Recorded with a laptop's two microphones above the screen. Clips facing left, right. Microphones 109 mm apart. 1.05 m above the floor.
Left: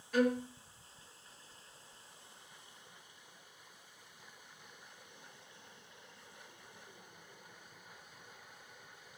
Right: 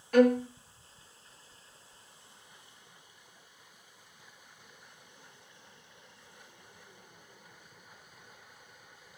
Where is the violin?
65° right (ahead or behind), 0.7 m.